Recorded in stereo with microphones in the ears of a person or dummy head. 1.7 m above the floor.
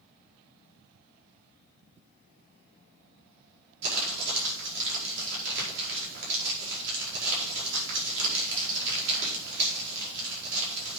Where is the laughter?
I don't hear laughter.